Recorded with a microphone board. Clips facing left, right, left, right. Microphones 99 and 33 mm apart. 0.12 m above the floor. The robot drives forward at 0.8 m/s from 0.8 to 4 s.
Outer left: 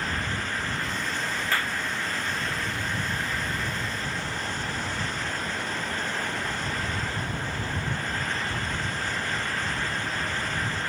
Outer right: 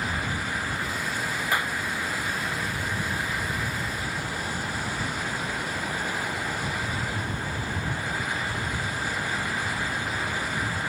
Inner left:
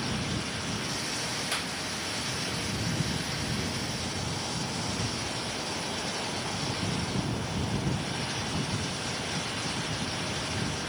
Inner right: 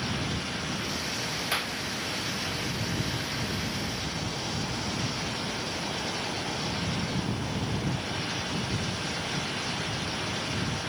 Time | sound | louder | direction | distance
1.5 | a clap | outer right 2 dB, inner right 3 dB | 15° right (ahead or behind) | ?